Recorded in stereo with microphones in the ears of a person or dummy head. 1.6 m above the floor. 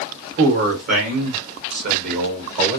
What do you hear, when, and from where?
0.4 s a man speaking: 60° right (ahead or behind), 2.5 m; by 2.8 s 40° right (ahead or behind), 1.3 m